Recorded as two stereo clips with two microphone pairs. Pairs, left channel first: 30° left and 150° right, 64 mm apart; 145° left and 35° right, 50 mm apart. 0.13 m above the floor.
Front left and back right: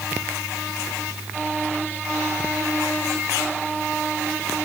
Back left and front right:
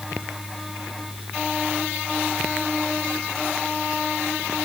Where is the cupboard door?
No cupboard door in this recording.